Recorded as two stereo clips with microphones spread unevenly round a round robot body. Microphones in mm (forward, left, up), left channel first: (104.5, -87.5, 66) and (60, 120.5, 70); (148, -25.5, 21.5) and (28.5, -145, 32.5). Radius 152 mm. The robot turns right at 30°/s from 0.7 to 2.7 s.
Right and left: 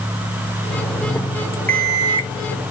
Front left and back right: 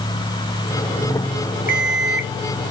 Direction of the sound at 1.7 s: 5° left.